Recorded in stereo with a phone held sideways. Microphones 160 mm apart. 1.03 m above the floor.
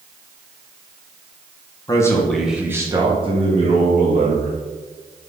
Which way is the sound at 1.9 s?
25° left (ahead or behind).